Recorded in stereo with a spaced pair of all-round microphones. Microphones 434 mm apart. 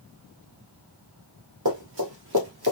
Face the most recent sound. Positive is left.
turn(degrees=-55)  # may be behind; listen again after turning